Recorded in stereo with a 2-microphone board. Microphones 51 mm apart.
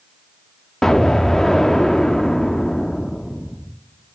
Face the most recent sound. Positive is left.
turn(degrees=5)  # may be behind; listen again after turning